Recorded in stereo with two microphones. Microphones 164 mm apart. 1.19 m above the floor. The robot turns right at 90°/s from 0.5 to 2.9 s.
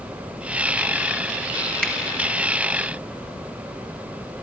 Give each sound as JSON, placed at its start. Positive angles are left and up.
{"t": 1.8, "sound": "a finger snap", "side_deg": 5, "distance_m": 1.9}